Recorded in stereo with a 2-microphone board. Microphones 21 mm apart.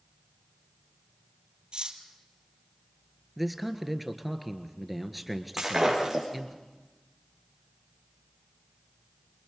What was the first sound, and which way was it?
Cutlery clinking, 50° right (ahead or behind).